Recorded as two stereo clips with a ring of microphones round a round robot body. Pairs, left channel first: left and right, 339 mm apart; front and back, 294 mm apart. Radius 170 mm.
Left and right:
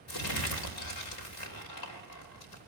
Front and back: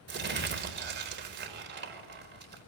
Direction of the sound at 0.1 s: 125° left.